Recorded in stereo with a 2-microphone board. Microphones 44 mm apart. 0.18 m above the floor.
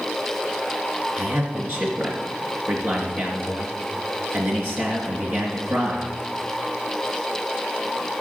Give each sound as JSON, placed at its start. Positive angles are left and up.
{"t": 1.2, "sound": "a man speaking", "side_deg": -45, "distance_m": 3.0}